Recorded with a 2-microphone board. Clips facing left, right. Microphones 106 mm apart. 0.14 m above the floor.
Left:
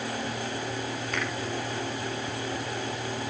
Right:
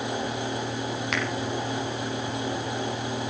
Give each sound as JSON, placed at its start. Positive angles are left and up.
{"t": 1.1, "sound": "a finger snap", "side_deg": -70, "distance_m": 5.5}